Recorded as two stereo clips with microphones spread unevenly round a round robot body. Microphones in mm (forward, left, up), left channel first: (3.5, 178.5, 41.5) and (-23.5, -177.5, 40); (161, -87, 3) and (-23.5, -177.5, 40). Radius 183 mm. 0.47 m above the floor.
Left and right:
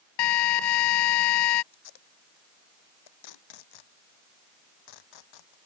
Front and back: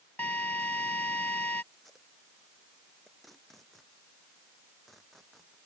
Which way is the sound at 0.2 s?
115° left.